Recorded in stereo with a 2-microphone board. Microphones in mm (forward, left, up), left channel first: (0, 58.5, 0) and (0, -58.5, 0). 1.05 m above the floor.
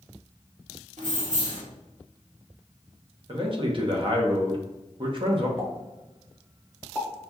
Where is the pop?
20° right (ahead or behind), 1.2 m.